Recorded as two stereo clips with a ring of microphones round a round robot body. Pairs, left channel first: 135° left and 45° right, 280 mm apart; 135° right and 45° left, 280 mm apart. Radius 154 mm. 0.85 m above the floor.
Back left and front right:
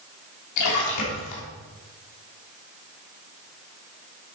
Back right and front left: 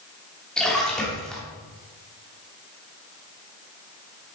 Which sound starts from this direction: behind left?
A splash, at 0.6 s.